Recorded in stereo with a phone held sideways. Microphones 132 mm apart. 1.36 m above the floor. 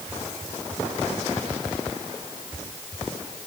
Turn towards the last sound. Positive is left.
No sound to turn to.